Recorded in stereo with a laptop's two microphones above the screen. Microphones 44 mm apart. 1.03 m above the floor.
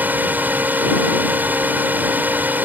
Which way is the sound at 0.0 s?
40° right (ahead or behind).